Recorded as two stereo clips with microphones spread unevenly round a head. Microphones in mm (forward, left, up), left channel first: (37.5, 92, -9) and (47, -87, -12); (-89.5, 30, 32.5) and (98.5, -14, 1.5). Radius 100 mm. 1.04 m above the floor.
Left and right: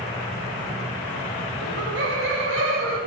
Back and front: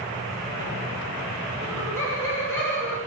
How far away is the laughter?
About 1.6 m.